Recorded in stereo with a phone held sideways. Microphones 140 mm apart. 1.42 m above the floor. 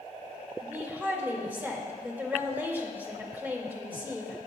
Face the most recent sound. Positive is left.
turn(degrees=-15)  # may be behind; listen again after turning